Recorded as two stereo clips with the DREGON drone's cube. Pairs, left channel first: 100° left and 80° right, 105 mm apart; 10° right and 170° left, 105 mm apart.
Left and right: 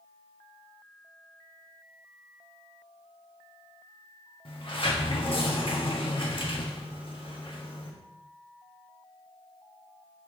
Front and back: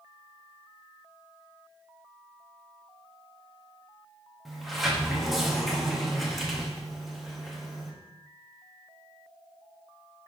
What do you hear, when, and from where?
4.5 s a sliding door: 80° left, 1.4 m